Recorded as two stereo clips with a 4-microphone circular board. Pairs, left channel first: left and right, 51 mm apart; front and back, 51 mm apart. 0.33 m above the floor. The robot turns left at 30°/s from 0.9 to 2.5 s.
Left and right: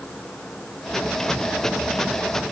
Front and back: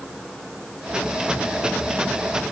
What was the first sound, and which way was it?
Only background noise.